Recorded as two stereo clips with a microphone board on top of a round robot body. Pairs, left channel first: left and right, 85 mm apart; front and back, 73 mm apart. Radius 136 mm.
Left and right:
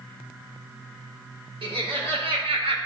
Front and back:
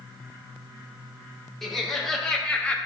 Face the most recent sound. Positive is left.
turn(degrees=-70)